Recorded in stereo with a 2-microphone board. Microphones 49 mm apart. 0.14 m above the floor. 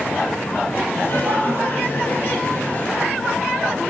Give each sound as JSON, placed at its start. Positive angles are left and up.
{"t": 0.9, "sound": "laughter", "side_deg": 50, "distance_m": 4.0}